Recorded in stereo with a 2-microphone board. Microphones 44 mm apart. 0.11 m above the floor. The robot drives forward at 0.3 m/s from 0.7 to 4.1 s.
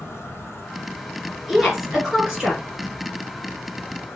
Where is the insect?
65° left (ahead or behind), 0.8 m; by 4.2 s 40° left (ahead or behind), 1.1 m.